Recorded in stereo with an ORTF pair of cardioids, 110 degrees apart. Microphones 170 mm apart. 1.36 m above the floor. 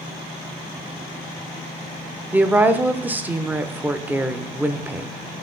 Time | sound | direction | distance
2.3 | a woman speaking | 10° right | 0.5 m